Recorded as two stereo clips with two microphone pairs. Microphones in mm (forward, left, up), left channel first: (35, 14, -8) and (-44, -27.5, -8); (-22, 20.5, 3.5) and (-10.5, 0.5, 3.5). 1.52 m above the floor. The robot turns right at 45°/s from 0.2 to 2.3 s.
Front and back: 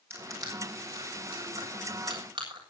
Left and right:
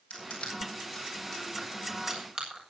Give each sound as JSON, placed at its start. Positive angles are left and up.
{"t": 0.1, "sound": "crushing", "azimuth_deg": 150, "distance_m": 7.0}